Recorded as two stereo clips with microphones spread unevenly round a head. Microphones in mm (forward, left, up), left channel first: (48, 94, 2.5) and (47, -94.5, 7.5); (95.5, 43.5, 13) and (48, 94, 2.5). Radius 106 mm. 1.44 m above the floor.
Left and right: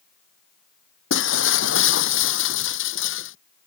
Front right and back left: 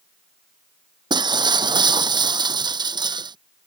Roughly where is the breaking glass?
Behind left.